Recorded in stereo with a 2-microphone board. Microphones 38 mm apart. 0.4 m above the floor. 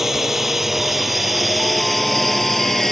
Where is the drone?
10° right (ahead or behind); by 2.9 s 5° left (ahead or behind).